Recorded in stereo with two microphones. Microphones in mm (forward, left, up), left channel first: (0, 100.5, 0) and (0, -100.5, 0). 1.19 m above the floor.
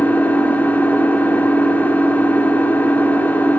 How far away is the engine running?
About 2.0 m.